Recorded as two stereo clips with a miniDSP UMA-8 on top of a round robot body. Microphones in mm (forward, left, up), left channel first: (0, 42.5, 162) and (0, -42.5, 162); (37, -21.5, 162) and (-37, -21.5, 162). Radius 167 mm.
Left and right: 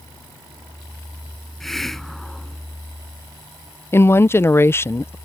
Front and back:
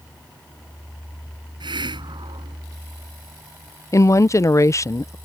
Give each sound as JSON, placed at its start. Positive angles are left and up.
{"t": 1.6, "sound": "a hiss", "azimuth_deg": 175}
{"t": 3.9, "sound": "a woman speaking", "azimuth_deg": 35}